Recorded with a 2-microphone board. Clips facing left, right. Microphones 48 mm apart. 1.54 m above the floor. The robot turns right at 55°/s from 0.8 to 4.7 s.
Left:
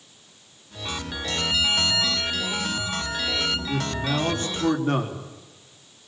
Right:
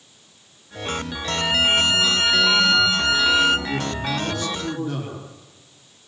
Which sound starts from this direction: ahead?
A man speaking, at 3.7 s.